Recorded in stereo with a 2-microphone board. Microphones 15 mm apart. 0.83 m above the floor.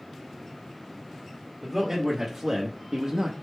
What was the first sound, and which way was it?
A man speaking, 20° right (ahead or behind).